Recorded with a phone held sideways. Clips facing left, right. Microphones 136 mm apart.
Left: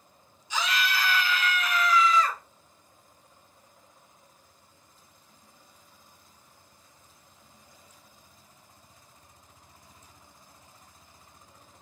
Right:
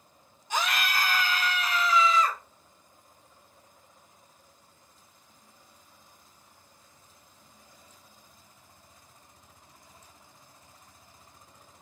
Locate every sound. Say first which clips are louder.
0.5 s a scream: even; 55° right (ahead or behind), 1.0 m; by 2.4 s 20° right (ahead or behind), 1.3 m